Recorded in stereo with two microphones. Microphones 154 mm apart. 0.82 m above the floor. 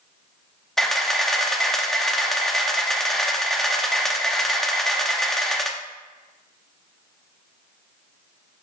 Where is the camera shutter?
5° left (ahead or behind), 0.8 m.